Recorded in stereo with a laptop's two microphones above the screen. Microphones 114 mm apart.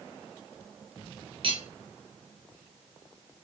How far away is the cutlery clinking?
About 0.7 m.